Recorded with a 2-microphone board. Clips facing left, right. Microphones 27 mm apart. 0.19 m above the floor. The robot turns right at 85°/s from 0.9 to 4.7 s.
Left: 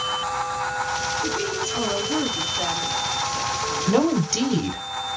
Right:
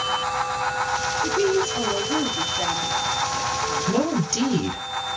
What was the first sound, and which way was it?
A woman speaking, 30° left.